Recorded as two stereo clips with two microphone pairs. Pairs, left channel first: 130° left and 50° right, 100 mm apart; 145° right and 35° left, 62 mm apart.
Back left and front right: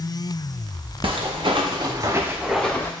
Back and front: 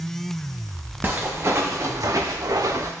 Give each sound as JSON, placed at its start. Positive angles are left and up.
{"t": 1.0, "sound": "footsteps", "azimuth_deg": -25, "distance_m": 1.4}